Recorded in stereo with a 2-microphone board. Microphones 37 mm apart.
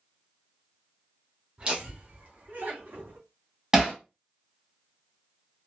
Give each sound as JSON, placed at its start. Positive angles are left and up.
{"t": 1.6, "sound": "laughter", "side_deg": -25, "distance_m": 0.9}
{"t": 3.7, "sound": "hammering", "side_deg": -15, "distance_m": 1.2}